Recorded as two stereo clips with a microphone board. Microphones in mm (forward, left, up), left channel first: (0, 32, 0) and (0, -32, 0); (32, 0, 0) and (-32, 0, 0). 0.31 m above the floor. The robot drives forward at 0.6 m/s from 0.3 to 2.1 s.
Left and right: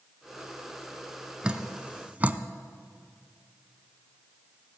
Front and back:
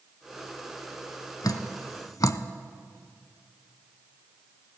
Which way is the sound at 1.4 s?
15° right.